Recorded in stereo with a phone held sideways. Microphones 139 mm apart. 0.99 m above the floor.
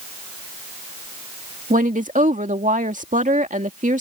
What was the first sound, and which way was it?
A woman speaking, 70° right (ahead or behind).